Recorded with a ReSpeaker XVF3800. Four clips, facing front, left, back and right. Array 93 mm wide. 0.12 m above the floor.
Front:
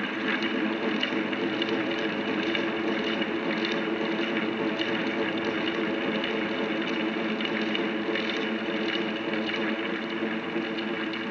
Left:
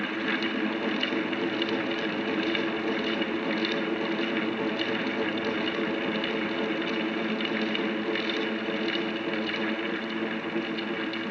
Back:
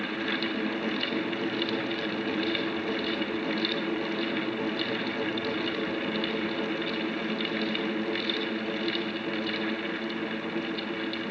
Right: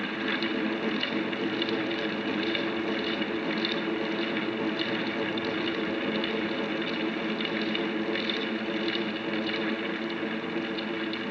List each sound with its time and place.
Only background noise.